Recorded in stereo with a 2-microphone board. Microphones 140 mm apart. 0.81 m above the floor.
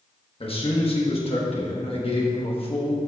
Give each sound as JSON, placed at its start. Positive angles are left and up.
{"t": 0.4, "sound": "a man speaking", "side_deg": 40, "distance_m": 1.2}